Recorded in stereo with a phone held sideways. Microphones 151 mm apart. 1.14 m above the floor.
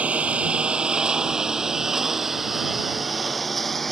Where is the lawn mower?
10° right (ahead or behind); by 3.9 s centre (ahead or behind).